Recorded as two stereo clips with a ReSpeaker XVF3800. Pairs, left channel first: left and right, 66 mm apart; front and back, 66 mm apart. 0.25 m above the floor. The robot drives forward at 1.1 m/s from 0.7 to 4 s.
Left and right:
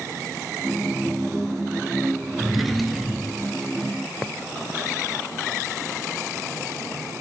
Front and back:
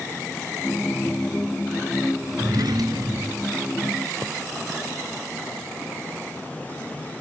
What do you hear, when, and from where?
2.4 s a drawer: straight behind, 0.5 m